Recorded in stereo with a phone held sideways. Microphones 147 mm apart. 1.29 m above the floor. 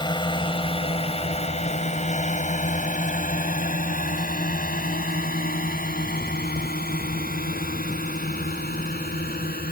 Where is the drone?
30° left (ahead or behind); by 9.7 s 85° left.